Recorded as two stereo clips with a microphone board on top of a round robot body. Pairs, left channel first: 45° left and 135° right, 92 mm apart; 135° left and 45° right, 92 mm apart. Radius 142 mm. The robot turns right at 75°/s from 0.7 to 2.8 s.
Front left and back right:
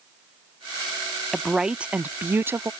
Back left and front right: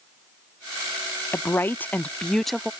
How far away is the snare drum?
No snare drum in this recording.